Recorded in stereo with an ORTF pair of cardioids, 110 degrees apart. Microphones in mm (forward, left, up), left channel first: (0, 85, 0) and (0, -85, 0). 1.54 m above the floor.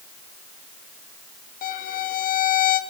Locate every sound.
1.6 s a violin: 50° left, 1.6 m